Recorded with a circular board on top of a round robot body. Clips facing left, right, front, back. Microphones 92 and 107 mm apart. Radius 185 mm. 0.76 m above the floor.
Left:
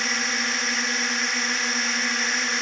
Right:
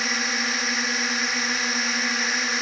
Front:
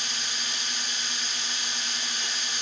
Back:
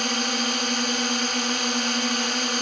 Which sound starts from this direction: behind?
A drone, at 0.0 s.